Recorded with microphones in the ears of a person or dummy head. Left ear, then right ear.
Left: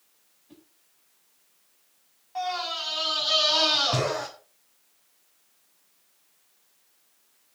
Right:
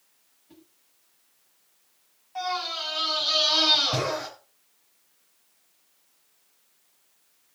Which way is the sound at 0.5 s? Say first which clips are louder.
Even; 10° left (ahead or behind).